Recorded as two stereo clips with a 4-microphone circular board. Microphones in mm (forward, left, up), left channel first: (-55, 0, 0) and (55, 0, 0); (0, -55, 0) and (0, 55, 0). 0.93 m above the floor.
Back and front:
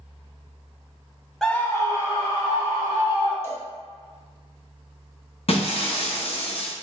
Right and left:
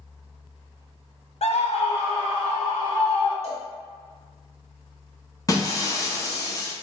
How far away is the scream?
About 0.6 m.